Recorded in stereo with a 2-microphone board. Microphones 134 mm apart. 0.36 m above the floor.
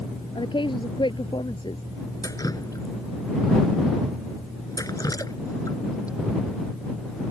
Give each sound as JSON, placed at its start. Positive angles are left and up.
{"t": 0.3, "sound": "a woman speaking", "side_deg": 35}
{"t": 2.2, "sound": "dripping", "side_deg": 25}